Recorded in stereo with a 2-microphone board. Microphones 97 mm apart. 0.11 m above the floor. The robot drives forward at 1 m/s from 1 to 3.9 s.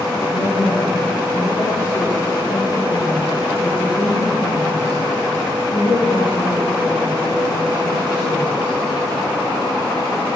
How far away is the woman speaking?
About 9.5 m.